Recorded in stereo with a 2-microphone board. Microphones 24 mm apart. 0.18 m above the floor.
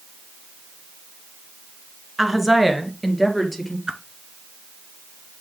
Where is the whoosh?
40° right (ahead or behind), 1.3 m.